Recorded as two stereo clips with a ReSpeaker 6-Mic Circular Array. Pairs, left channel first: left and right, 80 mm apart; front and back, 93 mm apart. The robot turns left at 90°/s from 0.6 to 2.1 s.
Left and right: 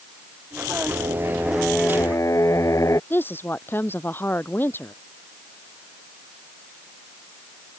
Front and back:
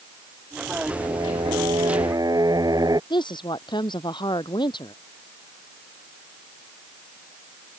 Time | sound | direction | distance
0.9 | singing | 115° right | ?
3.1 | a woman speaking | 30° left | ?